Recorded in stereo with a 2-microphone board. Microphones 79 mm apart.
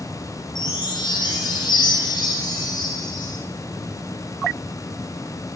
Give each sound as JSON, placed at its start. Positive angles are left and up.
{"t": 0.6, "sound": "a chime", "side_deg": 80, "distance_m": 2.0}